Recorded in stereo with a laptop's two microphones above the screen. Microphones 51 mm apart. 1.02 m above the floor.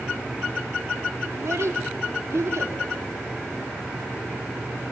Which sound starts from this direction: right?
A child speaking, at 1.3 s.